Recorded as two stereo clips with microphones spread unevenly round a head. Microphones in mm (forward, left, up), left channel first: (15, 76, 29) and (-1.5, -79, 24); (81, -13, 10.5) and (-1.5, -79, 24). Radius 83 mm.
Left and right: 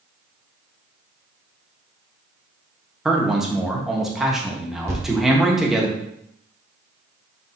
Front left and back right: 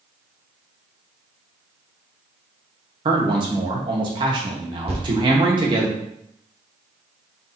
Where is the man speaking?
Straight behind, 1.0 m.